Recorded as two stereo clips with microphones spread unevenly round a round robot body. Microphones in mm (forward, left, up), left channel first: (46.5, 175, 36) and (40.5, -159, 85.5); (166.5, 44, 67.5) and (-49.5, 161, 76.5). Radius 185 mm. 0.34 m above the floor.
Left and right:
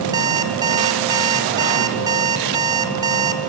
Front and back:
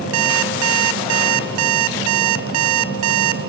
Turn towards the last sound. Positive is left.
turn(degrees=-175)